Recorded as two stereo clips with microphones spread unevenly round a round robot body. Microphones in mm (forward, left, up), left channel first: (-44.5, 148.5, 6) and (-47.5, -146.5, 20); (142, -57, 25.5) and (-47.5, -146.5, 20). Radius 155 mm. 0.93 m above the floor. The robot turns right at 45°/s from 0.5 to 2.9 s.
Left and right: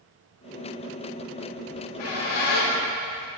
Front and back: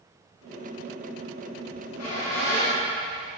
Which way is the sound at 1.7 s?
45° left.